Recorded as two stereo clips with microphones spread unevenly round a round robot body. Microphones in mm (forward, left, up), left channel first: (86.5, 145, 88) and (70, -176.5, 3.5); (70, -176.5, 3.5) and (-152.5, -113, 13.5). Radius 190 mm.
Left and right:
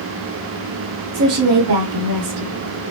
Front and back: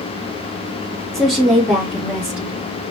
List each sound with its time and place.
1.1 s a woman speaking: 105° right, 1.4 m; by 2.9 s 115° right, 2.5 m